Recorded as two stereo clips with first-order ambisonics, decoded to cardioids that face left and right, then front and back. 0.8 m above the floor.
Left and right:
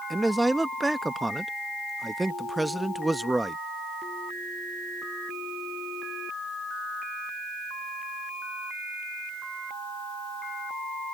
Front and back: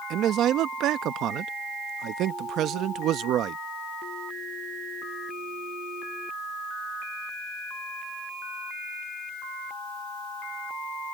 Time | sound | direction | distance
0.1 | a man speaking | 175° right | ?